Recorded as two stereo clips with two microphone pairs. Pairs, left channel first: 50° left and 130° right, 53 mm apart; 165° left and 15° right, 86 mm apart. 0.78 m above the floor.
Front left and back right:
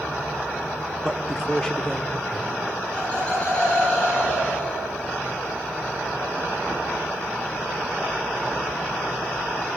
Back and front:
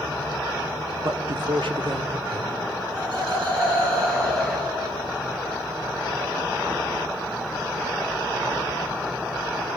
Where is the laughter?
15° right, 8.5 m.